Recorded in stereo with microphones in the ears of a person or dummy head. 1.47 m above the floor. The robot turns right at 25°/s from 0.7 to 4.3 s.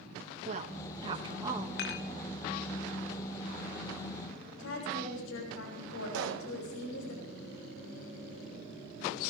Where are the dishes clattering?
65° left (ahead or behind), 0.9 m.